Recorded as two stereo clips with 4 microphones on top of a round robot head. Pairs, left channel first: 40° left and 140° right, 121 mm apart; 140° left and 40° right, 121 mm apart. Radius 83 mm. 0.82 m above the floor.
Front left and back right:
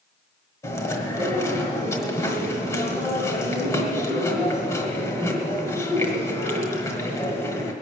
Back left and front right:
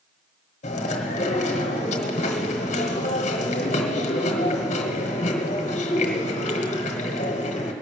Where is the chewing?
105° left, 1.3 m.